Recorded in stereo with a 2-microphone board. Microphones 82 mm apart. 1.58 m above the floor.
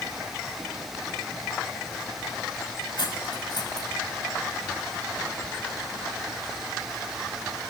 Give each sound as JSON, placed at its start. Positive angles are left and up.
{"t": 3.0, "sound": "cutlery clinking", "side_deg": 60, "distance_m": 6.0}